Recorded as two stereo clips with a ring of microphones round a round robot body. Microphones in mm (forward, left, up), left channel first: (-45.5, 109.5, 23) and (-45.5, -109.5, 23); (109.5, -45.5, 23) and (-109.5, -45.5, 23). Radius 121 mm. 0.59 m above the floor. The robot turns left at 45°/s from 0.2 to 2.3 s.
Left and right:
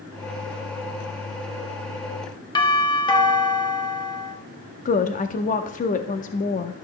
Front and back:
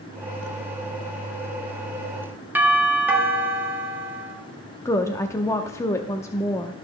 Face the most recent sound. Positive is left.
turn(degrees=70)